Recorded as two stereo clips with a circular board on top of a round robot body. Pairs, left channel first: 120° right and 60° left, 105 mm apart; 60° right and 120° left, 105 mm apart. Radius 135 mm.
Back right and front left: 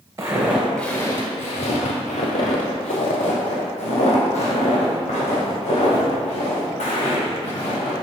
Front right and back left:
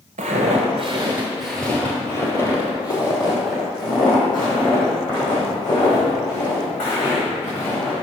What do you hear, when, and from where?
0.2 s footsteps: 120° left, 0.6 m; by 7.9 s 105° right, 3.5 m